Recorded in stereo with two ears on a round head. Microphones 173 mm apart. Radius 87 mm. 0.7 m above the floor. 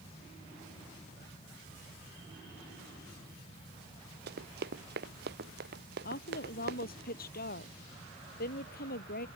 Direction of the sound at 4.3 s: 50° right (ahead or behind).